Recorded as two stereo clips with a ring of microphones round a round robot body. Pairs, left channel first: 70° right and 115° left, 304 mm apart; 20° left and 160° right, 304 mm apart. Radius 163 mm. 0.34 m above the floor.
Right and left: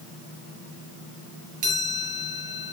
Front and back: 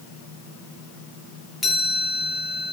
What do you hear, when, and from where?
1.6 s a chime: 115° left, 6.5 m